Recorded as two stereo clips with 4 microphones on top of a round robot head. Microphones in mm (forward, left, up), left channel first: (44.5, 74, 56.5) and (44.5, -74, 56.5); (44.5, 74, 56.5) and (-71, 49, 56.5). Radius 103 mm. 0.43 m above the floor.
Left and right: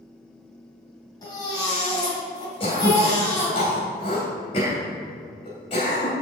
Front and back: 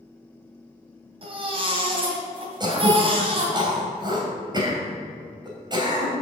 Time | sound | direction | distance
1.2 | a baby crying | 155° left | 2.5 m
2.6 | throat clearing | 145° left | 3 m